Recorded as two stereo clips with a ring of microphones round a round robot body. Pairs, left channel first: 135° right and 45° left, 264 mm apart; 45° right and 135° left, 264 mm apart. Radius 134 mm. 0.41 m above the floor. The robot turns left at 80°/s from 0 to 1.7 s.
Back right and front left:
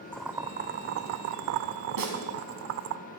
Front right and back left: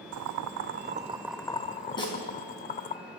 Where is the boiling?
145° left, 0.5 m; by 3.0 s 15° left, 0.5 m.